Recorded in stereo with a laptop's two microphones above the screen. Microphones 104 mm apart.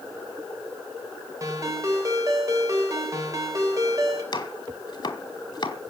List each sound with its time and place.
1.4 s a ringtone: 35° right (ahead or behind), 3 m
4.3 s chopping: 45° left (ahead or behind), 1.8 m